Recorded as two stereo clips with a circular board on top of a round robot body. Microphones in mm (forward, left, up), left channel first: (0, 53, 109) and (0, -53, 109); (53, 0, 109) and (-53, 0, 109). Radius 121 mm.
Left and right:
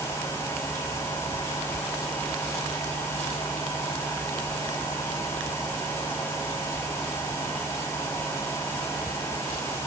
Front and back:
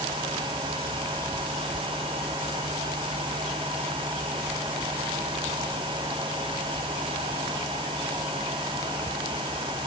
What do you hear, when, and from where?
Only background noise.